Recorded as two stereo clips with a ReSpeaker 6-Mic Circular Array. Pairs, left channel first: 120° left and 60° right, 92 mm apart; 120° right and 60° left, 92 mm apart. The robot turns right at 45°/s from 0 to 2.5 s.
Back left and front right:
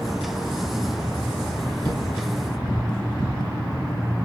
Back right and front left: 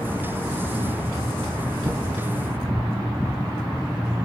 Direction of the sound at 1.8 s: 115° left.